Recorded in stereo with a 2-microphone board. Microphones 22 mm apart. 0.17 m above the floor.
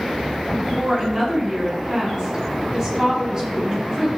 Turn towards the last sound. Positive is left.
turn(degrees=-35)  # may be behind; listen again after turning